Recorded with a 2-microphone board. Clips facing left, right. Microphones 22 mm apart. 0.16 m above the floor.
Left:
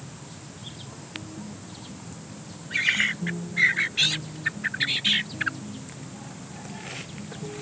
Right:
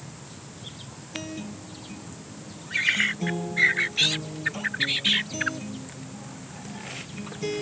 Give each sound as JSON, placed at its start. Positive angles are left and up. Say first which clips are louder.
{"t": 1.1, "sound": "a guitar", "louder": "right 5 dB", "side_deg": -70}